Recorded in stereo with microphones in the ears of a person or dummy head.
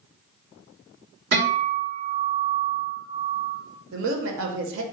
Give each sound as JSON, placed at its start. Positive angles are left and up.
{"t": 1.3, "sound": "a guitar", "side_deg": -50, "distance_m": 1.5}
{"t": 3.9, "sound": "a woman speaking", "side_deg": -70, "distance_m": 0.7}